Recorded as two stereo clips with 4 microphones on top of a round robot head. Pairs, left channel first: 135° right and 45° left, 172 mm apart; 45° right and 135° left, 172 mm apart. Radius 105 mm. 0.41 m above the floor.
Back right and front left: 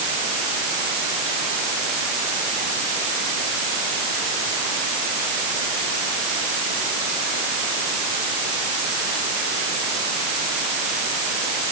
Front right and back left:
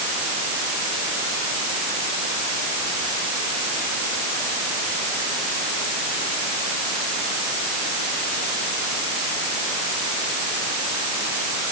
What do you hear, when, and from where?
Only background noise.